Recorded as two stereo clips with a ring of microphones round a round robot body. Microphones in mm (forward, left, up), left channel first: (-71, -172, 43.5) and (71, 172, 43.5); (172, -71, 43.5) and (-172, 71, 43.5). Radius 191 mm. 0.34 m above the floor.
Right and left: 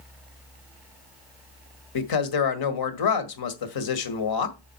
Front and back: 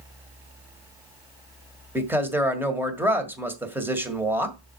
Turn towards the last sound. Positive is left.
turn(degrees=-120)